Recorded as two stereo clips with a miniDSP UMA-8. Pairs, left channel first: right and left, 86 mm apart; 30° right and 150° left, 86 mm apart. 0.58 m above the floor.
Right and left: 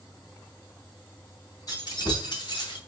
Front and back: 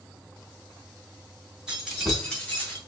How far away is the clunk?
No clunk in this recording.